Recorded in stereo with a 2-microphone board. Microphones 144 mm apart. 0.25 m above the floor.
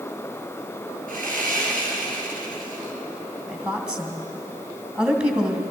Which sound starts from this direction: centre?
A woman speaking, at 3.5 s.